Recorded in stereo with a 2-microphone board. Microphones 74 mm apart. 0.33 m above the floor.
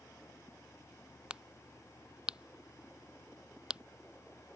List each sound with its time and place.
1.3 s a crack: 15° right (ahead or behind)